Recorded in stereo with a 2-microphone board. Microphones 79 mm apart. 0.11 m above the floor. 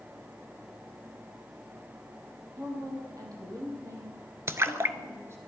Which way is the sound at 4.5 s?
35° right (ahead or behind).